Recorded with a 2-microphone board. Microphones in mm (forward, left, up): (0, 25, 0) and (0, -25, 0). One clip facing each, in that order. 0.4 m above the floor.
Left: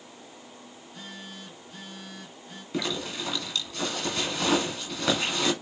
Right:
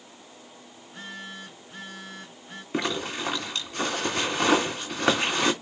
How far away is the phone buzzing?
About 4.5 m.